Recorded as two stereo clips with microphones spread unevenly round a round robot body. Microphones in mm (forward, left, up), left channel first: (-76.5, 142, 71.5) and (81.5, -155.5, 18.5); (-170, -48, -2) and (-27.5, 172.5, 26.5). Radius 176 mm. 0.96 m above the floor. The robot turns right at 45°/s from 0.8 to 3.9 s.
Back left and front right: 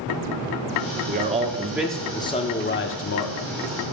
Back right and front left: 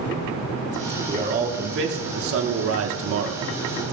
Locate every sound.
1.1 s a man speaking: 15° right, 0.9 m; by 3.5 s 90° left, 0.9 m